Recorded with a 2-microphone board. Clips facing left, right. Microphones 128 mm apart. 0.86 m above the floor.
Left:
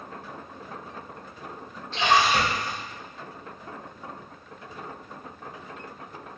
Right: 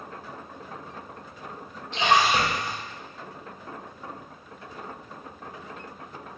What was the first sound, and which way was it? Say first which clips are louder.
A splash: even; 15° right (ahead or behind).